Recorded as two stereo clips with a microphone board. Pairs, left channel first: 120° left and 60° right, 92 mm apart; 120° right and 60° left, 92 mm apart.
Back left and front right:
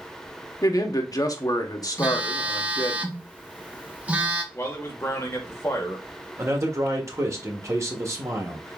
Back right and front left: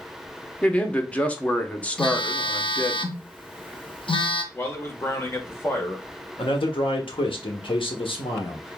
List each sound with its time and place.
0.6 s a man speaking: 165° left, 0.9 m
2.0 s a phone buzzing: 135° right, 0.7 m
4.5 s a man speaking: straight behind, 1.2 m
6.4 s a man speaking: 120° right, 1.2 m